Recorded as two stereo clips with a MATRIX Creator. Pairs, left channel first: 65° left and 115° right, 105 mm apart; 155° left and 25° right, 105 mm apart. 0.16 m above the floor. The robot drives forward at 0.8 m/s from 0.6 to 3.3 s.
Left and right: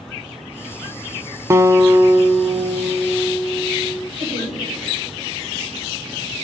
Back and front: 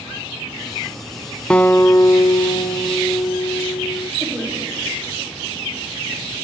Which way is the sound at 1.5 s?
135° right.